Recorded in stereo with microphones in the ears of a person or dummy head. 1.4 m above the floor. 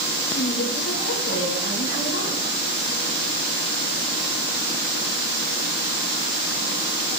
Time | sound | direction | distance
0.3 | a woman speaking | 75° left (ahead or behind) | 5 m